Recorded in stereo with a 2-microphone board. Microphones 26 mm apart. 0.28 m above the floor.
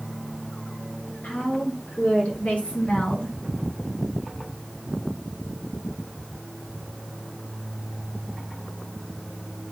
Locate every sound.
1.2 s a woman speaking: 75° left (ahead or behind), 4.5 m; by 3.4 s 45° left (ahead or behind), 2.5 m